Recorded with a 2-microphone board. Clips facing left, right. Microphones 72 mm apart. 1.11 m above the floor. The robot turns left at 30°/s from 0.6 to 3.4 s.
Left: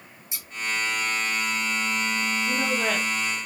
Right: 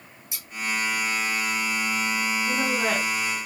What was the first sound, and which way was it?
Scissors, 25° left (ahead or behind).